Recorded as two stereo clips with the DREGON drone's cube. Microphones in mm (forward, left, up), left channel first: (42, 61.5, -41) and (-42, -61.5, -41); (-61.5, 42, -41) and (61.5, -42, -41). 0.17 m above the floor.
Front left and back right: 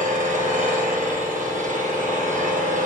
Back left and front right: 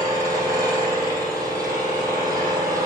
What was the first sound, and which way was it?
An engine running, 100° right.